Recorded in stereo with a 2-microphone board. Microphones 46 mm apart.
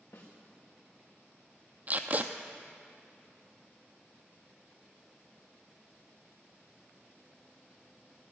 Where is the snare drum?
80° left, 4 m.